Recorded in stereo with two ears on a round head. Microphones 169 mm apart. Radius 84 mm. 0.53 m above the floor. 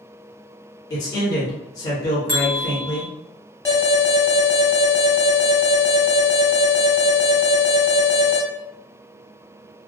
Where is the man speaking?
20° left (ahead or behind), 1.2 m.